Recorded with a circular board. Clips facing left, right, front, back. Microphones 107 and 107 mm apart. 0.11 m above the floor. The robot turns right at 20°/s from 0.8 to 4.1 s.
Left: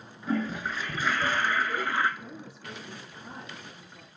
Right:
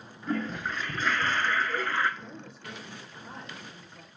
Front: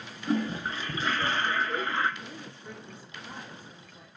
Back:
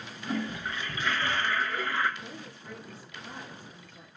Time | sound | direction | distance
0.3 | a toilet flushing | 5° left | 0.7 m
2.2 | a woman speaking | 50° left | 2 m